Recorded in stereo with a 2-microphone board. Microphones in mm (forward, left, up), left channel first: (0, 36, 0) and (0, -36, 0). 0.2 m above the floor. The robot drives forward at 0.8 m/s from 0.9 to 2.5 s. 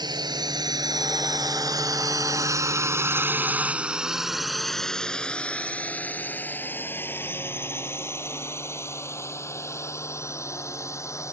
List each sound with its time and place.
0.0 s a drone: 70° right (ahead or behind); by 11.3 s 40° left (ahead or behind)